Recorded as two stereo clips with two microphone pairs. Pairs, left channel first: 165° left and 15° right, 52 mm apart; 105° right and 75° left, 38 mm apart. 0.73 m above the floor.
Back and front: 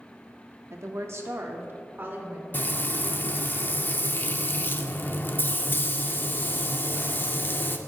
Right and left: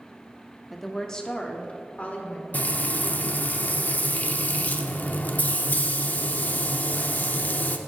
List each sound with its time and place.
0.7 s a woman speaking: 15° right, 0.9 m; by 2.4 s 60° right, 2.0 m
2.5 s frying: 145° right, 0.6 m